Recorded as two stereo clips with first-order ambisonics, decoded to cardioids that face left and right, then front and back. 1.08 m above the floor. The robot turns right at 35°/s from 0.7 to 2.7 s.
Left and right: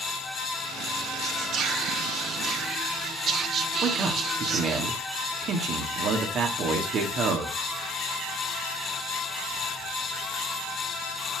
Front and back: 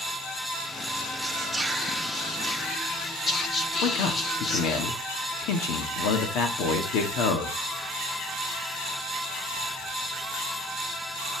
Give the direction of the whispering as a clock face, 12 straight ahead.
4 o'clock.